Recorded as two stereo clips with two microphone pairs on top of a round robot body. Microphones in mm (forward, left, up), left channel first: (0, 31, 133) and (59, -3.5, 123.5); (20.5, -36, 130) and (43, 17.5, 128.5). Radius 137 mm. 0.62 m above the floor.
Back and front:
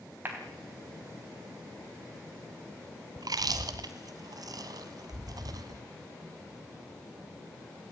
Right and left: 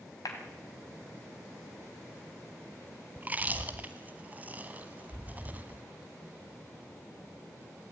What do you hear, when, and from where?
0.2 s a clap: 90° right, 3.5 m
3.2 s chewing: straight ahead, 1.0 m